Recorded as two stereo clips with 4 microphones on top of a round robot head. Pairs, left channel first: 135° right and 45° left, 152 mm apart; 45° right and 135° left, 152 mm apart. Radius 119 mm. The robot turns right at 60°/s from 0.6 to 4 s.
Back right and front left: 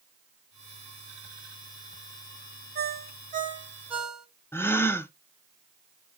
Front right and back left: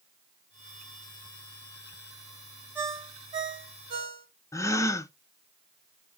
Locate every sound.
2.8 s a ringtone: 55° left, 1.6 m; by 4.3 s 130° left, 1.6 m
4.5 s a gasp: 80° right, 0.7 m